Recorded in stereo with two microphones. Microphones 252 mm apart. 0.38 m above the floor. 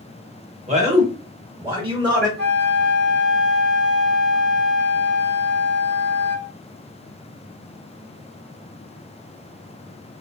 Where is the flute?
40° right (ahead or behind), 0.9 m.